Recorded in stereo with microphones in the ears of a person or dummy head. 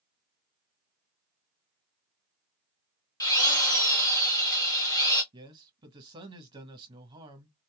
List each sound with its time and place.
3.2 s a drill: 20° left (ahead or behind), 1.0 m
5.3 s a man speaking: 25° right (ahead or behind), 1.4 m